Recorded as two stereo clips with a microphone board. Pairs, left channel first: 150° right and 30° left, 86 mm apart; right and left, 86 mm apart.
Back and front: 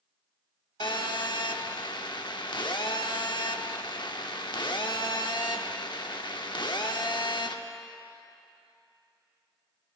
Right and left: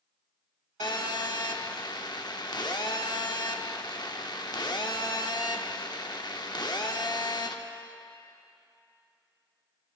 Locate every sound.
0.8 s a phone buzzing: 125° right, 0.8 m